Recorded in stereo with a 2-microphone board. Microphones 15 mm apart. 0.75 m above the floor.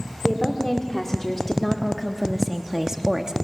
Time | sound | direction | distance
0.2 | a woman speaking | 30° left (ahead or behind) | 2 m